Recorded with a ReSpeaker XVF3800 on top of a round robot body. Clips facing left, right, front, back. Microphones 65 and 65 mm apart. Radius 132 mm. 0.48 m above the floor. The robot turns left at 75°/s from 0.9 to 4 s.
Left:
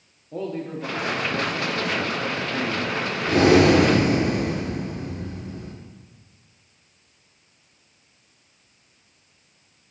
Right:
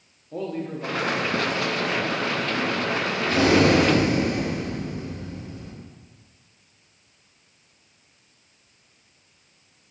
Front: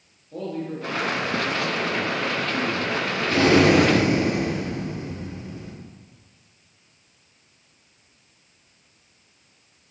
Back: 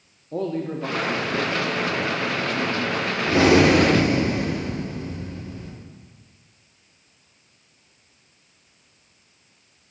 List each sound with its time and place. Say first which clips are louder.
0.3 s a man speaking: even, back 4 dB; straight behind, 1.0 m; by 3.1 s 15° left, 1.0 m
3.3 s breathing: left 3 dB, back 1 dB; 125° left, 1.7 m; by 5.7 s 70° left, 1.7 m